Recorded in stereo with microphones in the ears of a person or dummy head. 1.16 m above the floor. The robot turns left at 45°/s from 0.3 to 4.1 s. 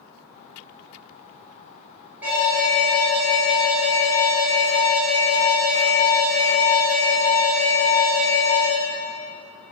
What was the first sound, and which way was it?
An alarm, 15° right.